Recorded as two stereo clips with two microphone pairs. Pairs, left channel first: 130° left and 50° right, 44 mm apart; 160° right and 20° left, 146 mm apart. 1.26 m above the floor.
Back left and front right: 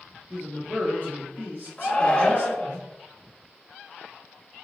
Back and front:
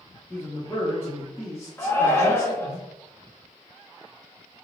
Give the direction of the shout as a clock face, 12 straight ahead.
7 o'clock.